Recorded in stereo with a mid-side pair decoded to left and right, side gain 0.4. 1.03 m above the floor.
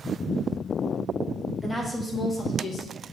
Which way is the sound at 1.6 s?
5° left.